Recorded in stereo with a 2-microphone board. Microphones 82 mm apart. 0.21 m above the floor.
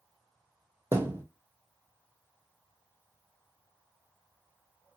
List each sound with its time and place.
0.9 s a thud: 25° right (ahead or behind), 0.8 m